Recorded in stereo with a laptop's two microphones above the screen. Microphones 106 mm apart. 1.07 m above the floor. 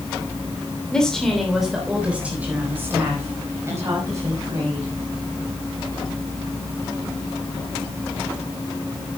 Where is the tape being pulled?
I don't hear tape being pulled.